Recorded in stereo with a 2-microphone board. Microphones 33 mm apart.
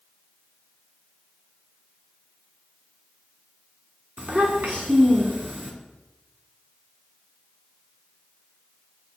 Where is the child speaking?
55° right (ahead or behind), 1.8 m.